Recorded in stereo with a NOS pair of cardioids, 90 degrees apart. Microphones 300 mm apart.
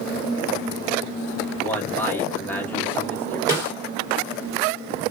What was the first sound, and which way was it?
A man speaking, 5° left.